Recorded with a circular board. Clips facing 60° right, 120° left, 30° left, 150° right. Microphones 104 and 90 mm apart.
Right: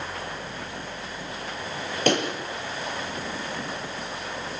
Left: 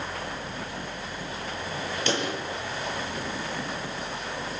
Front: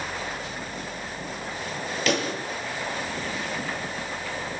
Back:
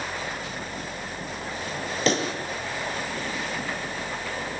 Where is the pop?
95° right, 7 m.